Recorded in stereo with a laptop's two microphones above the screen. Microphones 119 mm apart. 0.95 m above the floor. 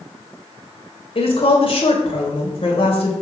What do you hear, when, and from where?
1.1 s a woman speaking: 50° left (ahead or behind), 3.5 m